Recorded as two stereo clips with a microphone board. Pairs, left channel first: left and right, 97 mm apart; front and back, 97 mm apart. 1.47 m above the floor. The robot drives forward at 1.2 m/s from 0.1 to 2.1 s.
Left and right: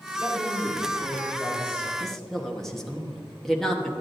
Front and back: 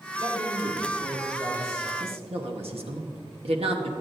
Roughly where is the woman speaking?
Behind.